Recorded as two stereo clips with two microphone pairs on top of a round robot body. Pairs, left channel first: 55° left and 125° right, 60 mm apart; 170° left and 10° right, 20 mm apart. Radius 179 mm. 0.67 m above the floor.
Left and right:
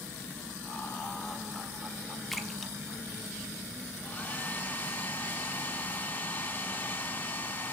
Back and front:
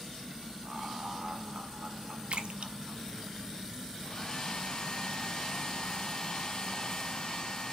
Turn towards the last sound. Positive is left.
turn(degrees=115)